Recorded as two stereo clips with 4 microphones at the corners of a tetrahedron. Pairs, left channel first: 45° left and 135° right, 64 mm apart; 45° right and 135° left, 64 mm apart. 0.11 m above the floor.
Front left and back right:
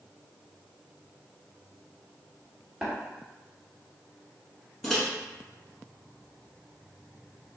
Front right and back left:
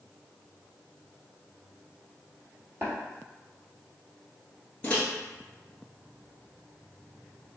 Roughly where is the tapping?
Behind left.